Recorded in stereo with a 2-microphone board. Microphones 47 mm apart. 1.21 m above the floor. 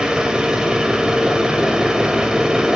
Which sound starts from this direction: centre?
An engine running, at 0.0 s.